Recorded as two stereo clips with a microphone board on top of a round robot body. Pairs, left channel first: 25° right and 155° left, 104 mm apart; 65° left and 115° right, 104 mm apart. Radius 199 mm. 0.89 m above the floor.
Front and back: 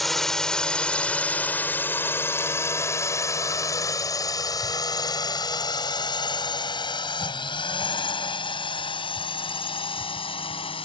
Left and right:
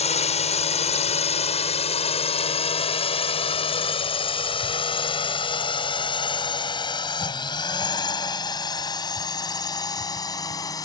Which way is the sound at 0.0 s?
65° left.